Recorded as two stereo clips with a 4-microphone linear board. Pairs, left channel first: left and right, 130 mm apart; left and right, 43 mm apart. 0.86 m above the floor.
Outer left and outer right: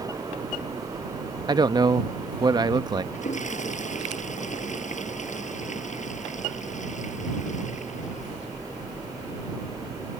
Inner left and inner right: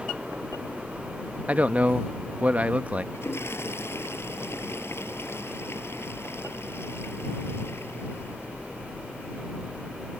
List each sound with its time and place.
1.5 s a man speaking: 35° right (ahead or behind)
3.1 s a toilet flushing: 70° left (ahead or behind)